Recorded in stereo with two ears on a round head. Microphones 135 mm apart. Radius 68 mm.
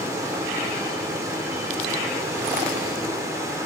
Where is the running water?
25° right (ahead or behind), 1.3 m.